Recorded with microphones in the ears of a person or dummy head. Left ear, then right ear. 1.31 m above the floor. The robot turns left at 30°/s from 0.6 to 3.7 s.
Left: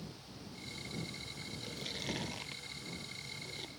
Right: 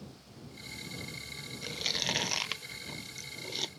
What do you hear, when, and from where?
1.6 s chewing: 25° right (ahead or behind); by 3.7 s 80° right